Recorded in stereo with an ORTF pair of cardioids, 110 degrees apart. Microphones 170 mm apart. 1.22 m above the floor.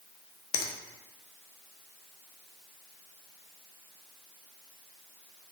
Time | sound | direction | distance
0.5 | a finger snap | 65° left | 0.6 m